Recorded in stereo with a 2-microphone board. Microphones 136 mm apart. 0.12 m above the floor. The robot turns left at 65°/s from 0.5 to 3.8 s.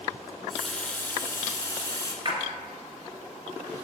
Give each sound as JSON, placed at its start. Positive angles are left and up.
{"t": 0.3, "sound": "a running tap", "side_deg": 0, "distance_m": 0.8}
{"t": 2.2, "sound": "a splash", "side_deg": -35, "distance_m": 1.3}